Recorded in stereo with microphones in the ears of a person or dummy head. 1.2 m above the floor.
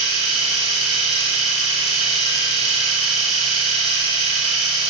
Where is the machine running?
50° left (ahead or behind), 4.5 m.